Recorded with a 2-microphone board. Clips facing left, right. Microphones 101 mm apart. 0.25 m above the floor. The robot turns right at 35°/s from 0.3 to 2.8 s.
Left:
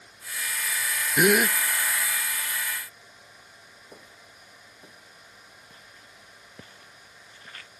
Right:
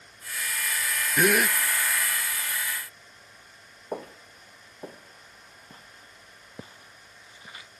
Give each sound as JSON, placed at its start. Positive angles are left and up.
{"t": 1.2, "sound": "a gasp", "side_deg": 15}
{"t": 3.9, "sound": "footsteps", "side_deg": -80}